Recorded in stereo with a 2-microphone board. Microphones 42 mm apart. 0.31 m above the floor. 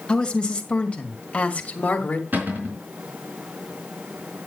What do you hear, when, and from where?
0.1 s a woman speaking: 20° left (ahead or behind), 2.0 m; by 2.2 s 40° left (ahead or behind), 1.9 m
2.3 s a cupboard door: 55° right (ahead or behind), 4 m